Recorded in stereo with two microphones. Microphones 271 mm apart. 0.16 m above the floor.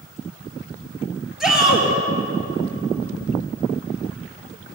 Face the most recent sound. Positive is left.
turn(degrees=0)  # may be behind; listen again after turning